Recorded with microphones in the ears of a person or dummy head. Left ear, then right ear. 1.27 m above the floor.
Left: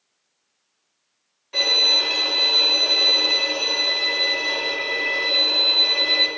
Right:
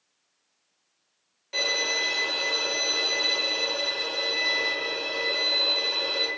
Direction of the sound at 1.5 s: 15° right (ahead or behind).